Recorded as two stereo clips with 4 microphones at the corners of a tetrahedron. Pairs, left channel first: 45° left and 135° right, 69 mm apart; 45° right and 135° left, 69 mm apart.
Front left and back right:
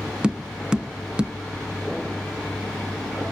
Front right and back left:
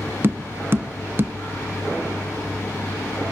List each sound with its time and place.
0.2 s tapping: 160° left, 0.8 m